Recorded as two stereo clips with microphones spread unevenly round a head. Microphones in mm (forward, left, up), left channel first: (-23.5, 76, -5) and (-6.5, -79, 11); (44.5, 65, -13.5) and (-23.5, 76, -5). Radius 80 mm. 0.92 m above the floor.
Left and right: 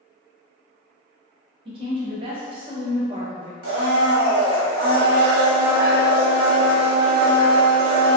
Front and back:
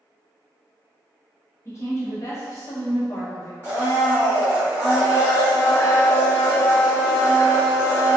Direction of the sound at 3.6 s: 110° right.